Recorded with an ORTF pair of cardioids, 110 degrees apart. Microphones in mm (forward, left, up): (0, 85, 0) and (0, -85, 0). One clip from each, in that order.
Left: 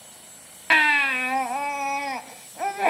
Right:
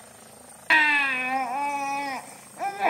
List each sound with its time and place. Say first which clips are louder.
0.7 s a baby crying: left 1 dB; 10° left, 0.7 m